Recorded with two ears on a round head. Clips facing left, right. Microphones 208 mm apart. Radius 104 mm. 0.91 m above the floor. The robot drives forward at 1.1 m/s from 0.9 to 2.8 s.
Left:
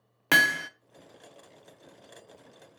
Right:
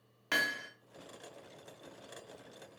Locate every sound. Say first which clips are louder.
0.3 s hammering: left 9 dB; 70° left (ahead or behind), 0.7 m